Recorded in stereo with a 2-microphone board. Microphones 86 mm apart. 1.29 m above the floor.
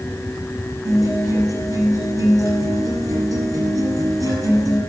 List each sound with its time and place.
0.8 s a guitar: 45° right (ahead or behind), 7.5 m